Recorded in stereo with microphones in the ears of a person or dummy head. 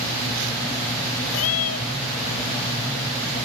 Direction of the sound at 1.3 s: 80° left.